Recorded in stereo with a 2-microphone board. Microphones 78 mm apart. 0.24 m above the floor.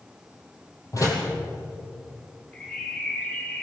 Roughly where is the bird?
Centre.